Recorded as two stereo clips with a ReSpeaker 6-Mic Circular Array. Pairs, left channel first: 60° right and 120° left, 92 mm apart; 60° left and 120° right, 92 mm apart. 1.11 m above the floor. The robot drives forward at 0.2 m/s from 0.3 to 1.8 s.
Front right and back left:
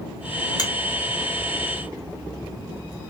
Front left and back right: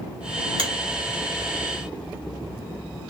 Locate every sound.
0.6 s a finger snap: 105° right, 1.1 m